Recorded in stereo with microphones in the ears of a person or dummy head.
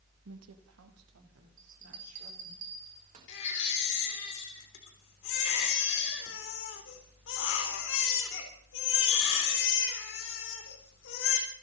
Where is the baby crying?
65° left (ahead or behind), 3.5 m.